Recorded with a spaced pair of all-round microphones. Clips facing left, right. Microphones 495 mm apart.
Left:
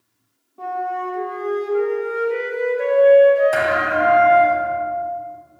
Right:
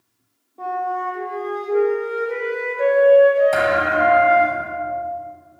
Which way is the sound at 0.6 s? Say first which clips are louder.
Even; 30° left (ahead or behind).